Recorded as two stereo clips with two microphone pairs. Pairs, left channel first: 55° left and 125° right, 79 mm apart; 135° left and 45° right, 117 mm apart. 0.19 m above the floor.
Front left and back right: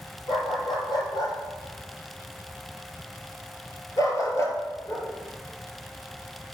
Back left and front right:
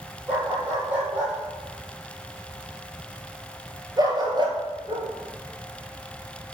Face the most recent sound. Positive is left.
turn(degrees=-35)